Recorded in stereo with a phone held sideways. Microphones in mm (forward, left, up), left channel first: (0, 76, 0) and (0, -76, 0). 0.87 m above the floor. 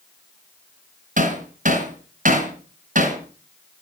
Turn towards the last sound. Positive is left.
turn(degrees=-55)  # may be behind; listen again after turning